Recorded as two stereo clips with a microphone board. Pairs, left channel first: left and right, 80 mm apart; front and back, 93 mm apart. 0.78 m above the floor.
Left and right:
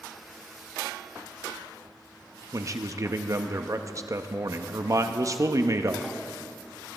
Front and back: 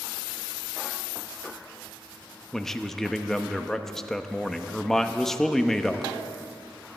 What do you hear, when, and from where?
2.5 s a man speaking: 85° right, 0.7 m